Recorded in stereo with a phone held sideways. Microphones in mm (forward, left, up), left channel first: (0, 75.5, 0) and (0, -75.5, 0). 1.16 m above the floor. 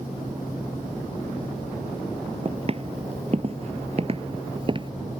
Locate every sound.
2.5 s footsteps: 40° right (ahead or behind); by 4.9 s 35° right (ahead or behind)